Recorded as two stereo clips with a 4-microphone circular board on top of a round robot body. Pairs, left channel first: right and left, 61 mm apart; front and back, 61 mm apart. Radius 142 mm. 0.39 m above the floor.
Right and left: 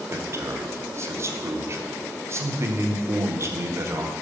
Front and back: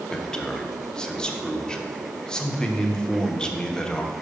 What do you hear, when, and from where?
0.1 s a man speaking: 75° left, 1.1 m